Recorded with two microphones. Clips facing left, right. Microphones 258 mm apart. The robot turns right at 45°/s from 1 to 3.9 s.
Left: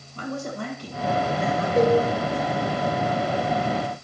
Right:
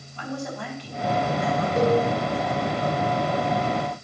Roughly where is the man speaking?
Left.